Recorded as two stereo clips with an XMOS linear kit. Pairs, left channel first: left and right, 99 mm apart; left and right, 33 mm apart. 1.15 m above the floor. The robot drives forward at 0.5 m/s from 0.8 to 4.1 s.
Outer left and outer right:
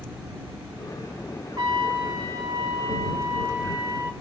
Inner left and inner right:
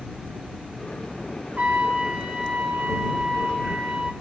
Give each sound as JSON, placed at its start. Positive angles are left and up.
{"t": 1.6, "sound": "a trumpet", "side_deg": -40, "distance_m": 2.5}